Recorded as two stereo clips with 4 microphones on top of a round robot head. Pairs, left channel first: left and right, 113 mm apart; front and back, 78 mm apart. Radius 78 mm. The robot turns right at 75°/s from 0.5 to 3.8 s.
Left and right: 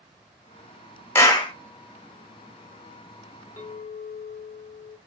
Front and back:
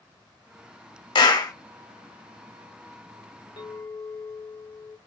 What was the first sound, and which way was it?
A clap, 20° left.